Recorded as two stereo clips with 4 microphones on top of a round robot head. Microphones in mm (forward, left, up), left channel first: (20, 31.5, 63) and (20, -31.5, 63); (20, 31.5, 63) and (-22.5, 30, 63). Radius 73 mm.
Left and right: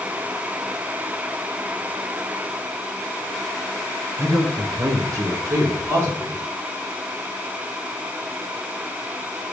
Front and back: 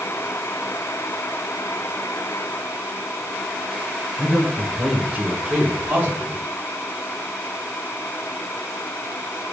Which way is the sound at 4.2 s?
70° right.